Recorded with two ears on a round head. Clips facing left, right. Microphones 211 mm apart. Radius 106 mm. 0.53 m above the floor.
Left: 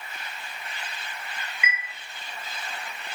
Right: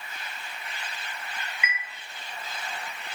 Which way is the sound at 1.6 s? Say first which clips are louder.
Left 4 dB; 70° left (ahead or behind).